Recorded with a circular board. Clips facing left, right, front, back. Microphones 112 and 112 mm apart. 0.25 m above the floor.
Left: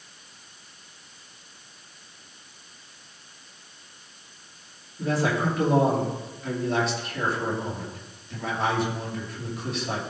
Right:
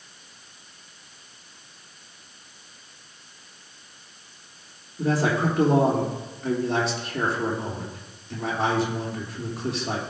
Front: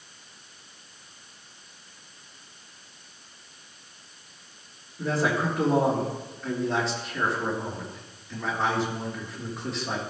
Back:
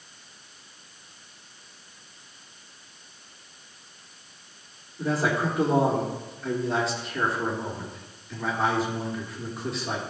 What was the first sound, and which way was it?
A man speaking, 95° right.